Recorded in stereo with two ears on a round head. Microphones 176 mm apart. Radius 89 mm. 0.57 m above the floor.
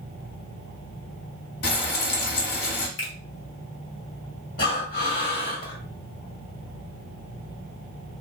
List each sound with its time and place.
1.6 s frying: 55° left (ahead or behind), 0.8 m
3.0 s a finger snap: 60° left (ahead or behind), 1.4 m
4.6 s breathing: 50° left (ahead or behind), 1.4 m